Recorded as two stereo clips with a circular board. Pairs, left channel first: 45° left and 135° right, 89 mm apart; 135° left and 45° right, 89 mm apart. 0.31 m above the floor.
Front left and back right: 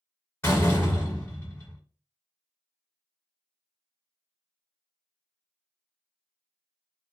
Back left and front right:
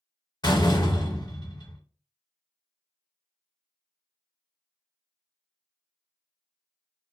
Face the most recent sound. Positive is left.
turn(degrees=110)